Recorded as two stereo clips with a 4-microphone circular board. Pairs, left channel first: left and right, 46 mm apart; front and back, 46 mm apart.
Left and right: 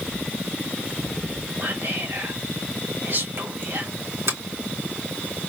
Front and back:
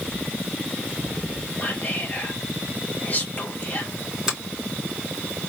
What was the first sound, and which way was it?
Whispering, 50° right.